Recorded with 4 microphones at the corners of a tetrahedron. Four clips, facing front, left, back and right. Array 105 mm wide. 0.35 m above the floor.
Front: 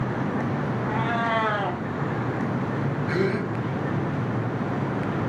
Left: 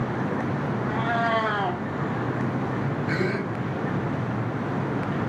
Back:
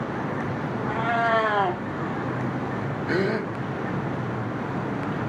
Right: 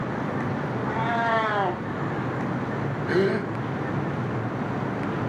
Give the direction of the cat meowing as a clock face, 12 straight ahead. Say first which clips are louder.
Even, back 3 dB; 5 o'clock.